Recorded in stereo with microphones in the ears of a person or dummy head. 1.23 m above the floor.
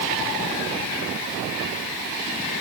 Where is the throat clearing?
No throat clearing in this recording.